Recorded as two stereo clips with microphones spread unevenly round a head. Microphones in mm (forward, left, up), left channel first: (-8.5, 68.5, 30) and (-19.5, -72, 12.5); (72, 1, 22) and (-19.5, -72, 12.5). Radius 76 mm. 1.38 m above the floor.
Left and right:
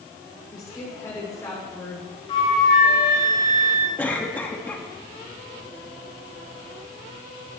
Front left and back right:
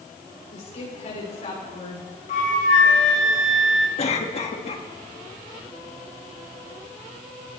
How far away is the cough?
About 2 m.